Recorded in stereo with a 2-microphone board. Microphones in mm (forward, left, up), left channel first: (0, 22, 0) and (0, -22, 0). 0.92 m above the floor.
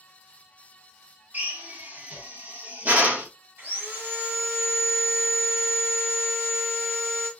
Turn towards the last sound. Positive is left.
turn(degrees=-60)  # may be behind; listen again after turning